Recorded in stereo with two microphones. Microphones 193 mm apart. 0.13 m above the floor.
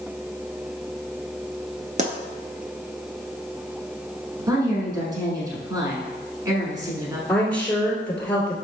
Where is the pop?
40° right (ahead or behind), 0.5 m.